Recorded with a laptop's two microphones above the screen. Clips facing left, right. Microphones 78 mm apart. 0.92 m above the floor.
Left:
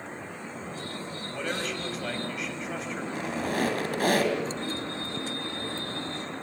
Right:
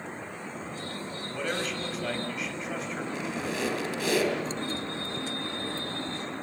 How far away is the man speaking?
About 5 m.